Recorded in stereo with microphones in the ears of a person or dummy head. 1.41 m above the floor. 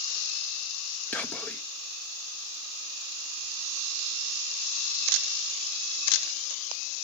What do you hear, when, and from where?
1.1 s whispering: 10° left (ahead or behind), 0.8 m